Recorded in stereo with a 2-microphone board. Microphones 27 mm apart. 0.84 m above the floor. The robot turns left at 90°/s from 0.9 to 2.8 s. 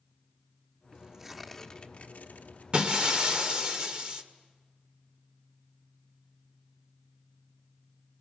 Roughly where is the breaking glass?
Right.